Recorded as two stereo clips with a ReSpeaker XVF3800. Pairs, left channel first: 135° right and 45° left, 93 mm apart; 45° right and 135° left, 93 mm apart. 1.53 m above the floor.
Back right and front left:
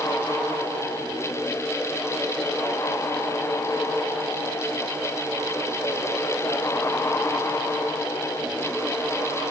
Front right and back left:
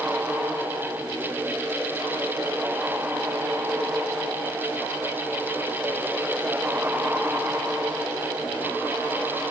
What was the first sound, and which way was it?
Only background noise.